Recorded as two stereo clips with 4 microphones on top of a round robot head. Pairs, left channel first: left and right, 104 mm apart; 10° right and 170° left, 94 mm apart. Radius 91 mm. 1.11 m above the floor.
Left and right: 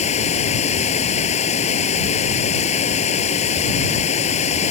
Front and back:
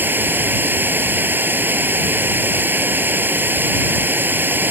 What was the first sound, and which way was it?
Running water, 105° left.